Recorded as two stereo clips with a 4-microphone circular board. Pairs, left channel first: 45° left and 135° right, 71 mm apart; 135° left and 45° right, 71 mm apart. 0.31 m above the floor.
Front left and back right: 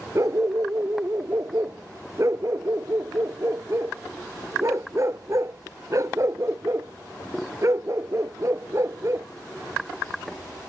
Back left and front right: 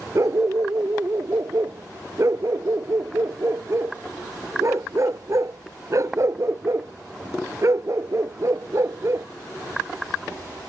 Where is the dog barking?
90° right.